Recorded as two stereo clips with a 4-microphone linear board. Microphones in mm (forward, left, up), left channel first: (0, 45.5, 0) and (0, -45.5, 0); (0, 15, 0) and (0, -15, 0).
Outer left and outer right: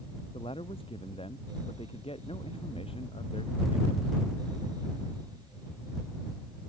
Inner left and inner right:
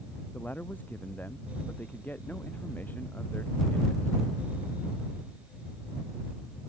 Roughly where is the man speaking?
Left.